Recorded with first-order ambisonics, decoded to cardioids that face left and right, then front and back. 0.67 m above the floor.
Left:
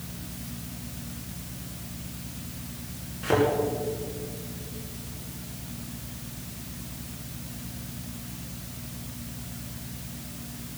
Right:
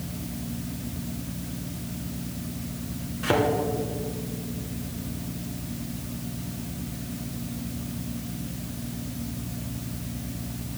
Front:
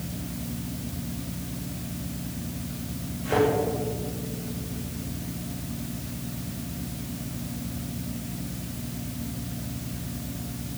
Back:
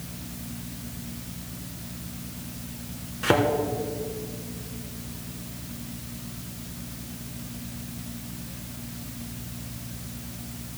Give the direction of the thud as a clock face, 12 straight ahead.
5 o'clock.